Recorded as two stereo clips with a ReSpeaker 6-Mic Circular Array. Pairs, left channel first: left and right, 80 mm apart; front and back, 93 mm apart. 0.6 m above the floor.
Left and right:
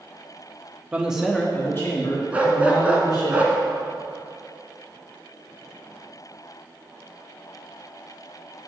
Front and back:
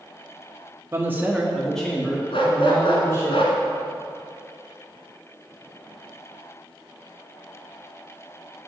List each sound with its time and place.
0.9 s a man speaking: 145° right, 1.1 m; by 3.3 s 60° left, 2.5 m
2.3 s a dog barking: 15° right, 1.6 m